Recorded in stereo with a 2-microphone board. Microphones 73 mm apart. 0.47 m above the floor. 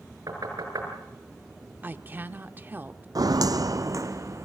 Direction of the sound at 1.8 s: 25° right (ahead or behind).